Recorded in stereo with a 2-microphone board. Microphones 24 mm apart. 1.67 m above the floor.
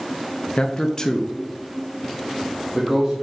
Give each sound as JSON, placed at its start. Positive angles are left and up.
{"t": 0.6, "sound": "a man speaking", "side_deg": 40, "distance_m": 0.6}